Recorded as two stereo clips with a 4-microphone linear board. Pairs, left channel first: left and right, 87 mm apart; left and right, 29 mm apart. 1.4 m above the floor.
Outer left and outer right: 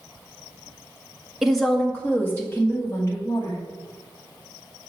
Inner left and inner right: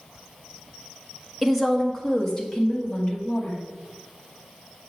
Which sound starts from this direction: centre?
A woman speaking, at 1.4 s.